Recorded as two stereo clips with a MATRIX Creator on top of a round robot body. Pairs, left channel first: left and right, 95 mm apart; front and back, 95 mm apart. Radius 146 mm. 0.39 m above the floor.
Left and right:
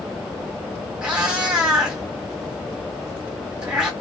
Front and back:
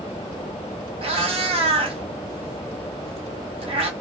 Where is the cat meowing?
170° right, 1.3 m.